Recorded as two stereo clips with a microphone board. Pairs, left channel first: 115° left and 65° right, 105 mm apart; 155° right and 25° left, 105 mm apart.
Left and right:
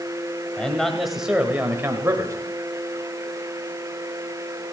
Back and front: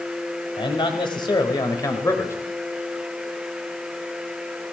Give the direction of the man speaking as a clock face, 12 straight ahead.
6 o'clock.